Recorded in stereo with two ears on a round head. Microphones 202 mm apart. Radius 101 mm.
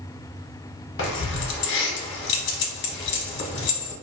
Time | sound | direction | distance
1.0 | keys jangling | 50° left (ahead or behind) | 0.7 m